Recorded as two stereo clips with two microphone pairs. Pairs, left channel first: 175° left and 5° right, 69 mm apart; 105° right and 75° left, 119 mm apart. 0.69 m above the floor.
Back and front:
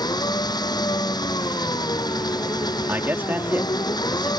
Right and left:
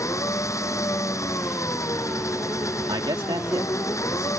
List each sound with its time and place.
0.0 s an engine running: 170° right
2.9 s a man speaking: 45° left